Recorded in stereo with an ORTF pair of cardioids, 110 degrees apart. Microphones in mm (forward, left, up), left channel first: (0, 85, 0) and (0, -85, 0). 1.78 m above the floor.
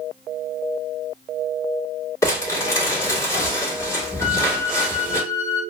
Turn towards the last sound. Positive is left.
turn(degrees=25)